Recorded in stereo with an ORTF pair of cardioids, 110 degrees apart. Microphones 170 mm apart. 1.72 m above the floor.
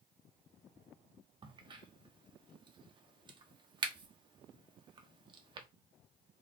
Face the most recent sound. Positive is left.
turn(degrees=-30)